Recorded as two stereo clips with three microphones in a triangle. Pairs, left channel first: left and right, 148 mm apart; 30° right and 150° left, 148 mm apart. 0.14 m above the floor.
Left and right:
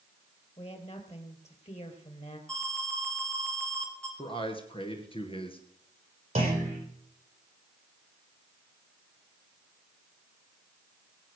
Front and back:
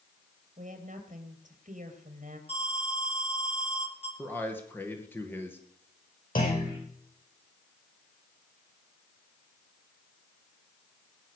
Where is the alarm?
5° left, 3 m.